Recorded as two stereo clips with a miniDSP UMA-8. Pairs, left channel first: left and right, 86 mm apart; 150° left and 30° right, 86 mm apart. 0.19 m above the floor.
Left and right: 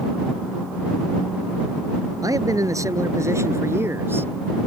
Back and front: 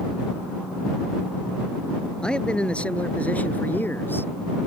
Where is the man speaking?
130° right; by 4.3 s 150° right.